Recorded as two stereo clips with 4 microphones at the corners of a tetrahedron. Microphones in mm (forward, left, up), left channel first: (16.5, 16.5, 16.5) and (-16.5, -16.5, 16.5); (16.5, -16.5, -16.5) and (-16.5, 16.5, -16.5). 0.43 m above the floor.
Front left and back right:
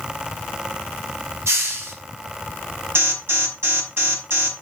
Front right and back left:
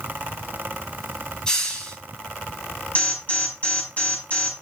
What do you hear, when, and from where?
1.5 s a hiss: 120° right, 5 m
3.0 s an alarm: 100° right, 5 m